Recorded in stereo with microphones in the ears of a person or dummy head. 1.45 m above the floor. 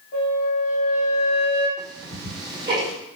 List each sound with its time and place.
0.1 s a flute: 55° left (ahead or behind), 0.9 m
1.8 s ticking: 20° right (ahead or behind), 1.3 m